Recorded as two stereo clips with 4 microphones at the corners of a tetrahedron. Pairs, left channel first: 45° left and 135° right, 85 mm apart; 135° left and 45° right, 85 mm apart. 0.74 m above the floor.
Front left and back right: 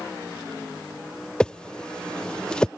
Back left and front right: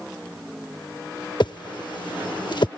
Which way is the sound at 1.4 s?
125° left.